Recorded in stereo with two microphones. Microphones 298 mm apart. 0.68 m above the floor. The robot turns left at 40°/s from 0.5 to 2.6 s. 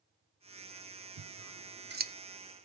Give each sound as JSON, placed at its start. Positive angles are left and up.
{"t": 1.2, "sound": "scissors", "side_deg": -65, "distance_m": 0.6}